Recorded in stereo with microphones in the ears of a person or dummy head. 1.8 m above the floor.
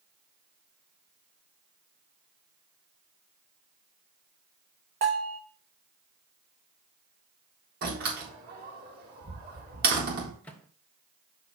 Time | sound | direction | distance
5.0 | a bell | 50° right (ahead or behind) | 3 m
7.8 | a door slam | 50° right (ahead or behind) | 4 m
10.4 | a microwave | 10° left (ahead or behind) | 1.1 m